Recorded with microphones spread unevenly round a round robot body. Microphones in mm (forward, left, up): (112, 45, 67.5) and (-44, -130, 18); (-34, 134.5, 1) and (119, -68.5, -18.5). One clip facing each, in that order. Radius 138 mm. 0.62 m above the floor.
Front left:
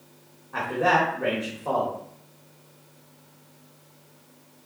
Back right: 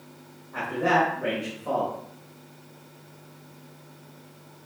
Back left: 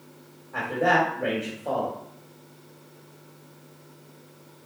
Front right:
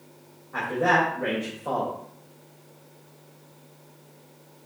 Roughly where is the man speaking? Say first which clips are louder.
Even, even; ahead.